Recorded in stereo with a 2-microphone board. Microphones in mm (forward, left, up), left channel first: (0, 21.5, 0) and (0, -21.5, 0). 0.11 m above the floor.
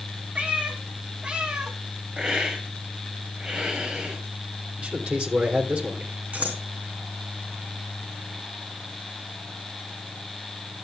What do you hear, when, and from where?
0.3 s a cat meowing: 30° right (ahead or behind), 3 m; by 1.8 s 15° right (ahead or behind), 2.0 m
2.2 s a hiss: 20° right (ahead or behind), 6 m
4.8 s a man speaking: 30° right (ahead or behind), 3.5 m
6.3 s scissors: 40° right (ahead or behind), 3.5 m